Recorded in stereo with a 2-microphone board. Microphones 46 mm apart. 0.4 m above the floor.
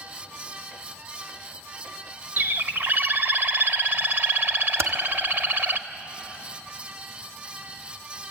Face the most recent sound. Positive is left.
turn(degrees=-60)  # may be behind; listen again after turning